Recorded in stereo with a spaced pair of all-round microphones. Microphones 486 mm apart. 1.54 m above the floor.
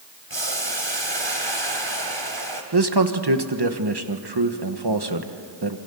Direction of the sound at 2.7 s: 55° right (ahead or behind).